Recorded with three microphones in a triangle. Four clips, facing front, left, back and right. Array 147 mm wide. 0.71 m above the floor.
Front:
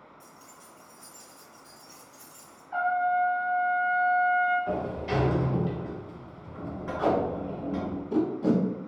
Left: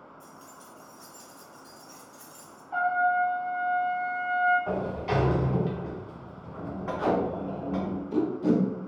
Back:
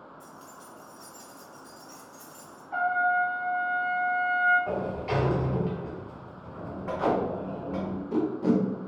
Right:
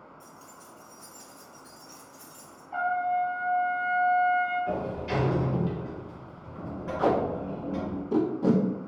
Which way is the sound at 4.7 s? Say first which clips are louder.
Left 1 dB, even; 115° left.